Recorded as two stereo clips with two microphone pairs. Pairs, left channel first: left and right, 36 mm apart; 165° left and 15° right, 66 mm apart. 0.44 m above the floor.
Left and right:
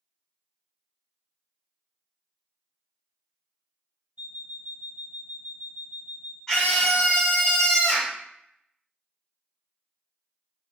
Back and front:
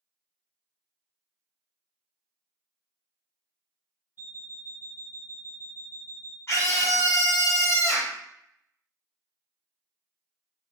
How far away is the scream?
About 1.6 m.